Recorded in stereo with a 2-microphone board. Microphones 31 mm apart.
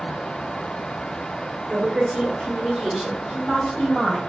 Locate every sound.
1.7 s a woman speaking: 25° right (ahead or behind), 1.2 m; by 4.2 s 30° left (ahead or behind), 1.4 m